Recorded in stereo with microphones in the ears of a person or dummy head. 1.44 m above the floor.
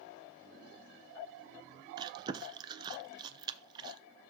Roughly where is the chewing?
Right.